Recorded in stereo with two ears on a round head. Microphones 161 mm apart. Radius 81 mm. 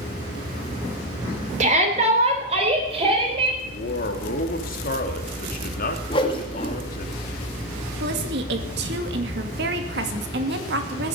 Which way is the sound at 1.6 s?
40° right (ahead or behind).